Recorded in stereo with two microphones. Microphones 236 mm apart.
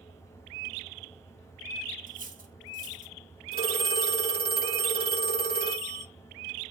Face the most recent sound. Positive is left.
turn(degrees=40)  # may be behind; listen again after turning